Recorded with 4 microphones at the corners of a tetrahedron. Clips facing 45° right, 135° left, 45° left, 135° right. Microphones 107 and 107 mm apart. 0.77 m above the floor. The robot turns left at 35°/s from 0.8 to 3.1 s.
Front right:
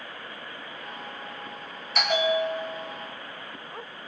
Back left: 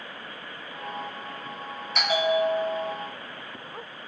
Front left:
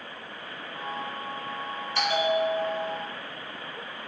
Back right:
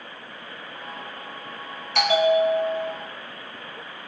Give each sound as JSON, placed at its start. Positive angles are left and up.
{"t": 1.9, "sound": "a bell", "azimuth_deg": -135, "distance_m": 0.8}